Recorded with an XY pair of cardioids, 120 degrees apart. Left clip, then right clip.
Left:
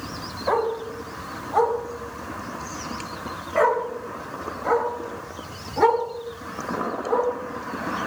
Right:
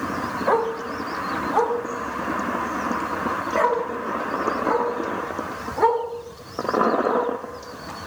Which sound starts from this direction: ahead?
A dog barking, at 0.5 s.